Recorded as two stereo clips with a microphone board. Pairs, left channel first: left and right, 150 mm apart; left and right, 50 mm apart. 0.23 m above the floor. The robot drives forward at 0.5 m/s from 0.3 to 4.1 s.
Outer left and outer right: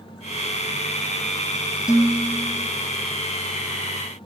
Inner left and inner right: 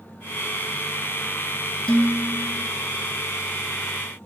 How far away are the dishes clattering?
About 1.4 m.